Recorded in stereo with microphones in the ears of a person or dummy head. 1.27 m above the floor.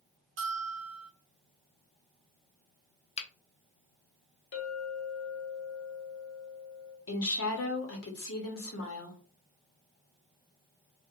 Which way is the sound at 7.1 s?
65° left (ahead or behind).